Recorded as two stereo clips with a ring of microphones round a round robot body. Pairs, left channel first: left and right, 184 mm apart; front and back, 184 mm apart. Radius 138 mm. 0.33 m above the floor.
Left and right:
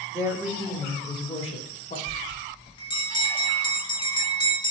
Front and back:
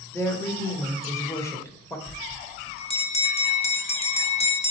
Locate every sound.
0.1 s a woman speaking: 55° right, 0.9 m; by 2.0 s 70° left, 1.2 m
2.1 s a bell: 35° left, 0.8 m